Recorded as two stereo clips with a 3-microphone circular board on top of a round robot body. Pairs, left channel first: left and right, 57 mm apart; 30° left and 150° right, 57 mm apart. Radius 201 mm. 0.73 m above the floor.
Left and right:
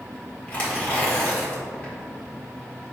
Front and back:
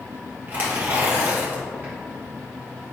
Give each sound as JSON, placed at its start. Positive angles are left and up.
{"t": 0.5, "sound": "tearing paper", "azimuth_deg": 155, "distance_m": 1.8}